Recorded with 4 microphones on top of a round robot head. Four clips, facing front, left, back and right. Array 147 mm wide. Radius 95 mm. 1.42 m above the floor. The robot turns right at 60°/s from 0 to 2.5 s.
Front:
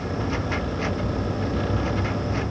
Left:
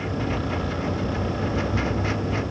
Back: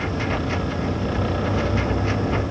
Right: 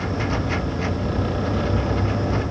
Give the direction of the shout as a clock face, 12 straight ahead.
I don't hear a shout.